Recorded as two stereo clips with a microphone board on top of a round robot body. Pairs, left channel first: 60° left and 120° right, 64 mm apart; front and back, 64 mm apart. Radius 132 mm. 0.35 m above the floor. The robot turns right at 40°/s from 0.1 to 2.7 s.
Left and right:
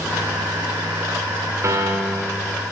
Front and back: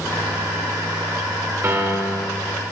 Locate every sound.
1.6 s a piano: 150° right, 1.9 m; by 2.4 s 120° right, 1.9 m